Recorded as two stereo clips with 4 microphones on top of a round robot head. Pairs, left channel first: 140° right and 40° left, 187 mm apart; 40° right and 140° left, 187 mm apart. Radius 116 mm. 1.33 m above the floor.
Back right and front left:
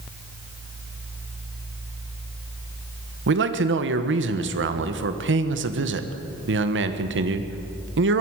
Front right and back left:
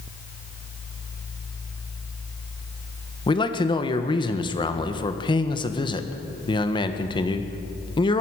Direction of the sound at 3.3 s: 25° left.